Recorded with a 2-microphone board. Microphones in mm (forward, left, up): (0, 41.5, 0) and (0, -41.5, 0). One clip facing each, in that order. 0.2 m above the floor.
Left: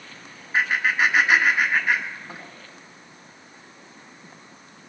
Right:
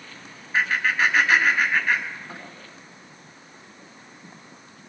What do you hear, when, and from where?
0.5 s laughter: 20° left (ahead or behind), 1.5 m